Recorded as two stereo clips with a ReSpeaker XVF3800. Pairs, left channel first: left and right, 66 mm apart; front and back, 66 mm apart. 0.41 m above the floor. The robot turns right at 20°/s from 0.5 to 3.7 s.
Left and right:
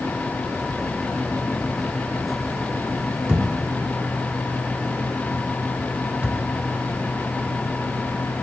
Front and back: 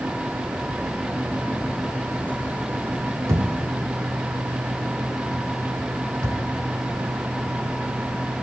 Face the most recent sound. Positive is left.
turn(degrees=-155)